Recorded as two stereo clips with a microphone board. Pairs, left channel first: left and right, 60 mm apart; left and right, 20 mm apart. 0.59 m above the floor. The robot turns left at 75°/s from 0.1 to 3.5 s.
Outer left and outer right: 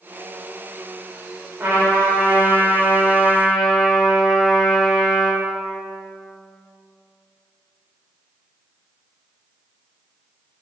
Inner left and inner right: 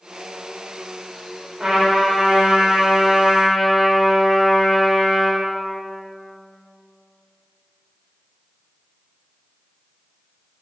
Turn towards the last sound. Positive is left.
turn(degrees=175)